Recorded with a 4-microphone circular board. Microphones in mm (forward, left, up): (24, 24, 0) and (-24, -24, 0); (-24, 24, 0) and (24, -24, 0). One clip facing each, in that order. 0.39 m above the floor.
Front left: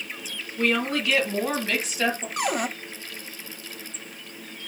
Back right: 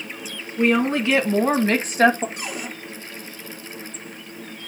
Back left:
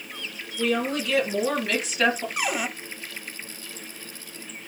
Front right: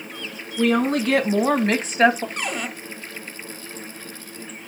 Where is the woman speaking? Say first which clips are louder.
Back right 5 dB, front right 6 dB; 65° right, 3 m; by 2.3 s 105° right, 1.8 m.